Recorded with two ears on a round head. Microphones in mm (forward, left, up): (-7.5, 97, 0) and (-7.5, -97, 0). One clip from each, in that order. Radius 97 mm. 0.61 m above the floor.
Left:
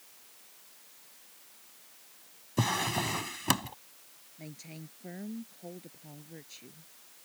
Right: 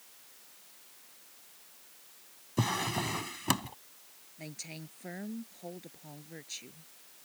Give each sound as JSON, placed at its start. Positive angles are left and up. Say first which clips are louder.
{"t": 2.6, "sound": "a drawer", "louder": "left 2 dB", "side_deg": 10}
{"t": 4.4, "sound": "a woman speaking", "louder": "right 3 dB", "side_deg": -35}